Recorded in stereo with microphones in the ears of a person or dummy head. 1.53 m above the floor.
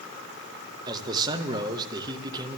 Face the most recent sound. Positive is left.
turn(degrees=-25)  # may be behind; listen again after turning